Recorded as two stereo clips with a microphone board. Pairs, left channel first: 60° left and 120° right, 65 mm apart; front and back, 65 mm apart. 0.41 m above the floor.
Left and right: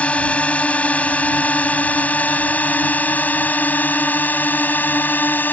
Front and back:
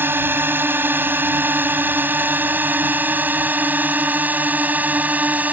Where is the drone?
125° left; by 5.5 s 115° left.